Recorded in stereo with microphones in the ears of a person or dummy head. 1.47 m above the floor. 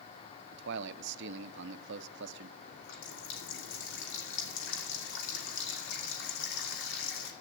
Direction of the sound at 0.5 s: 65° right (ahead or behind).